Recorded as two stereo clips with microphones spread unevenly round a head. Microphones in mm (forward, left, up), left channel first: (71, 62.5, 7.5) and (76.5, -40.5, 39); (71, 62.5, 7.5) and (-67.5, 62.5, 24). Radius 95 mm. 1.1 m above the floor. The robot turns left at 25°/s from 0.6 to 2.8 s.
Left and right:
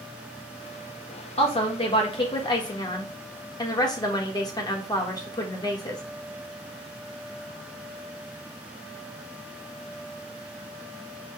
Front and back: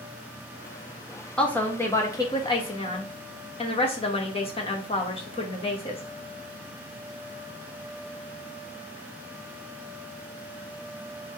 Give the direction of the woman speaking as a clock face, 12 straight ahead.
9 o'clock.